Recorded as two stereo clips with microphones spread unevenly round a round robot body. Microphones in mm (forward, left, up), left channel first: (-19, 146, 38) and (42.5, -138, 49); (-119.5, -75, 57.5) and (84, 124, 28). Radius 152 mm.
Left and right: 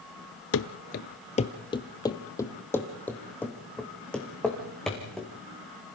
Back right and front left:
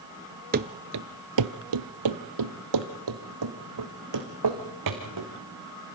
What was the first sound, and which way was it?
Running footsteps, 95° left.